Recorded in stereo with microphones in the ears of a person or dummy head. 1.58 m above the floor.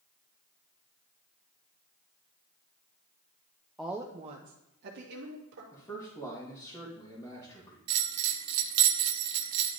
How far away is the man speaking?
About 1.7 m.